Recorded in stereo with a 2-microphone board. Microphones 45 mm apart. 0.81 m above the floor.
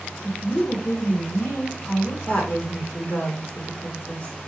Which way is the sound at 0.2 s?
55° left (ahead or behind).